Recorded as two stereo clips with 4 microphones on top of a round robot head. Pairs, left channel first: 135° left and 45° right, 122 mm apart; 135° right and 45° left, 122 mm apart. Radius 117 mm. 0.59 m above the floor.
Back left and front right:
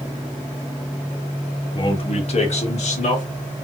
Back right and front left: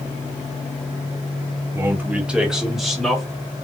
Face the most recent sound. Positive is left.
turn(degrees=135)